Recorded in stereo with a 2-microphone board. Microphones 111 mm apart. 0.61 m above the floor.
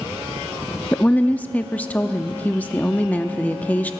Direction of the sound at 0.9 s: 15° left (ahead or behind).